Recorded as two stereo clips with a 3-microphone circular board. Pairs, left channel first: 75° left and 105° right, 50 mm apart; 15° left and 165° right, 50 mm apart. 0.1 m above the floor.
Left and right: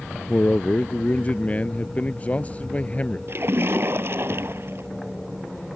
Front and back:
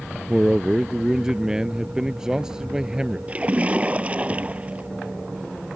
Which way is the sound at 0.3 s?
120° left.